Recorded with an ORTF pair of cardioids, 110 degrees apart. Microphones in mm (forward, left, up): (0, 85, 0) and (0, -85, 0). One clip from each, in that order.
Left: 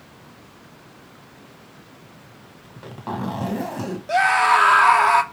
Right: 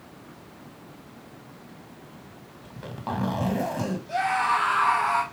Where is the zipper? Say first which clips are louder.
Left 1 dB; 5° right, 1.4 m.